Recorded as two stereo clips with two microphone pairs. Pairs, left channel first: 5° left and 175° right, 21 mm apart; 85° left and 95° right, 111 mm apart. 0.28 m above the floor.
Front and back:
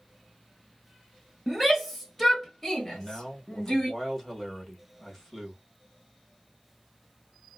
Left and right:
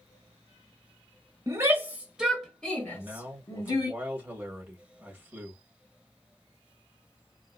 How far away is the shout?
About 1.2 m.